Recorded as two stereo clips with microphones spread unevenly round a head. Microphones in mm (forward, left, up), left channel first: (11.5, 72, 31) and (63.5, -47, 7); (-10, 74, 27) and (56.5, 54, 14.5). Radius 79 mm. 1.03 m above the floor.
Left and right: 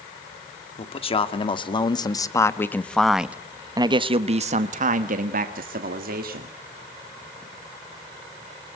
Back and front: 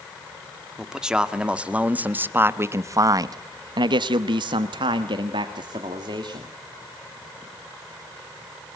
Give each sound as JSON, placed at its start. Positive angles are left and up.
{"t": 0.8, "sound": "a man speaking", "azimuth_deg": 65, "distance_m": 2.0}